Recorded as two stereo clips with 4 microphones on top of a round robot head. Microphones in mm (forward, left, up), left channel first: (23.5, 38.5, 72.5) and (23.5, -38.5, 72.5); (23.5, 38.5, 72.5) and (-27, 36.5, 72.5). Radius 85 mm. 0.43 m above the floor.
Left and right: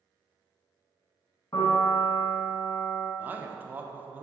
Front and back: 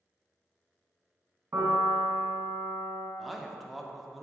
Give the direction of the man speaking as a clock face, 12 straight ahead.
3 o'clock.